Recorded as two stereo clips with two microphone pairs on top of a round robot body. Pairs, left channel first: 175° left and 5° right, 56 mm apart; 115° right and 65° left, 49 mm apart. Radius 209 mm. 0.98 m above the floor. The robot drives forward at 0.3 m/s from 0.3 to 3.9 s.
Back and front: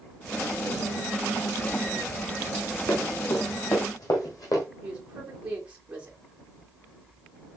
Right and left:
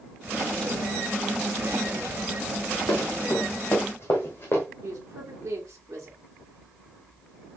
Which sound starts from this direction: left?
A woman speaking, at 4.8 s.